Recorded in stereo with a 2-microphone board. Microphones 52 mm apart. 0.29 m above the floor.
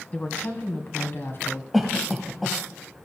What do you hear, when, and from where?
0.1 s a woman speaking: 30° left (ahead or behind), 2 m; by 1.6 s 50° left (ahead or behind), 2.5 m
1.7 s a cough: centre (ahead or behind), 1.4 m